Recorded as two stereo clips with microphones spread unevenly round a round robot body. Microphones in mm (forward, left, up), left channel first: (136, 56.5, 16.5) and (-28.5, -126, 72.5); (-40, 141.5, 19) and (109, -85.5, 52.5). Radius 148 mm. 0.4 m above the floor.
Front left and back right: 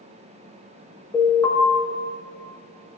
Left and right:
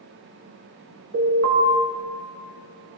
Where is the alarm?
25° right, 6 m.